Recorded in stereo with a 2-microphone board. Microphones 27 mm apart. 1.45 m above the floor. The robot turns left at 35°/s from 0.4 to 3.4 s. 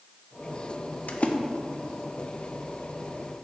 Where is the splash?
55° left (ahead or behind), 0.8 m; by 1.4 s 45° left (ahead or behind), 0.8 m.